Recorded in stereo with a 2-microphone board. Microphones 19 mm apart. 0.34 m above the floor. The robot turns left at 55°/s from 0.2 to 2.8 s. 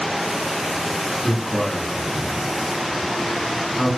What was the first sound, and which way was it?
A man speaking, 40° left (ahead or behind).